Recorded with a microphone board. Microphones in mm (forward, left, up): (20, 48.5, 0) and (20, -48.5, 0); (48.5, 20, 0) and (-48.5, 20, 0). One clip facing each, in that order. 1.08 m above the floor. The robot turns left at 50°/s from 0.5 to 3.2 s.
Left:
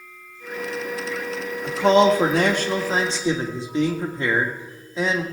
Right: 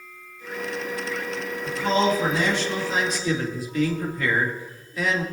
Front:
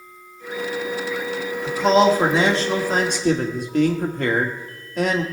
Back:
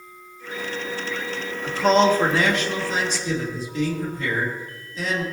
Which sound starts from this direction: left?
A man speaking, at 1.6 s.